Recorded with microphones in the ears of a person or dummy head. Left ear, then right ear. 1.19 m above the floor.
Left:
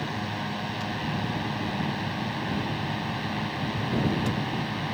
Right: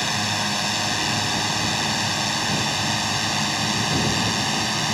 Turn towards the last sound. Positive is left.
turn(degrees=-80)